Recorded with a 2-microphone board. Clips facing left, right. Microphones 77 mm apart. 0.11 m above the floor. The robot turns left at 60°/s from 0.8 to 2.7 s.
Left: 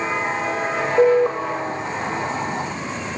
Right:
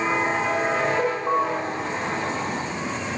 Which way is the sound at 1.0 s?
55° left (ahead or behind).